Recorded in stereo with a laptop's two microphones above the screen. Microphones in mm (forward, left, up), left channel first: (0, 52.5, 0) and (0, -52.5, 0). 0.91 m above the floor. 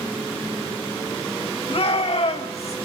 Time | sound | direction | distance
1.7 | a shout | 60° left (ahead or behind) | 4.5 m